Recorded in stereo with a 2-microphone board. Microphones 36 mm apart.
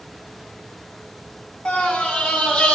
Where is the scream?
30° left (ahead or behind), 3.5 m.